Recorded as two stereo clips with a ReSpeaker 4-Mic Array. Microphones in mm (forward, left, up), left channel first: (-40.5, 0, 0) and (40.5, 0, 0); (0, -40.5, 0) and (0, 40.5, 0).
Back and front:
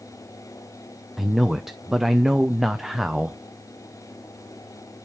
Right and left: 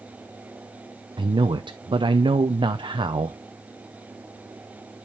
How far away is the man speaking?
About 0.6 m.